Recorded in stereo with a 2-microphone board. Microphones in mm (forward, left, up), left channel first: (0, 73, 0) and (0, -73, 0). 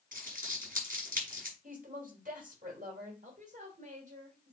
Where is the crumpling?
75° right (ahead or behind), 5.5 m.